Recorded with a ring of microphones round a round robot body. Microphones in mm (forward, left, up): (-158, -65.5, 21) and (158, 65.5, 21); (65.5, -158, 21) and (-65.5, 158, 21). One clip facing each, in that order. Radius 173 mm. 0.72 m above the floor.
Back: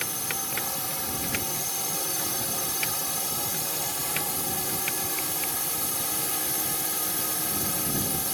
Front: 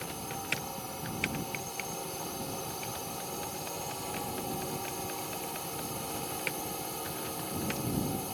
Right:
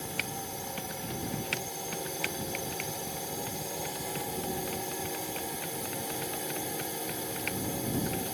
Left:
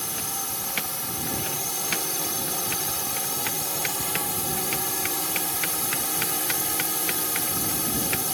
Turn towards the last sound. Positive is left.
turn(degrees=165)